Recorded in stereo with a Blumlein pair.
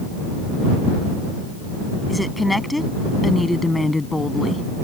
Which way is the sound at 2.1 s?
Straight ahead.